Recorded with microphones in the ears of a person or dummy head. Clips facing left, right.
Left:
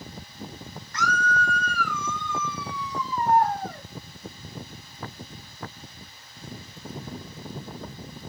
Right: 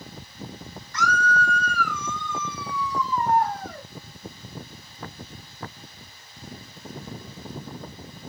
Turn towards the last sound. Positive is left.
turn(degrees=-90)